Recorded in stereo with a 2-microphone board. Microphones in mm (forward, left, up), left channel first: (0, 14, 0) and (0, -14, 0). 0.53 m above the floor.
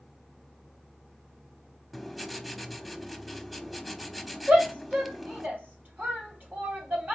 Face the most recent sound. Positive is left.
turn(degrees=-70)  # may be behind; listen again after turning